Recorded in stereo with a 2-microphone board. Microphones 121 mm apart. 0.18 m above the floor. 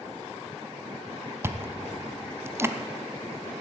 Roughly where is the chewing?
Centre.